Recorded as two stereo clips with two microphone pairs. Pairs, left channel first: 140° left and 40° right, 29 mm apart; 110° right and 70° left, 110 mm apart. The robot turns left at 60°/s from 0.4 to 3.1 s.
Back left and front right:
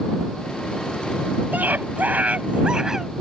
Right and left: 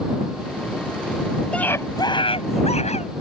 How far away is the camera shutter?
I don't hear a camera shutter.